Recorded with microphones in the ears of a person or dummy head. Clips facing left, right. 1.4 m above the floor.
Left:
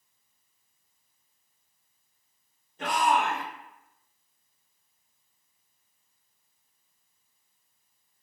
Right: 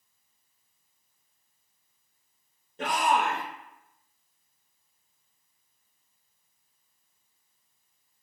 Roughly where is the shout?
Right.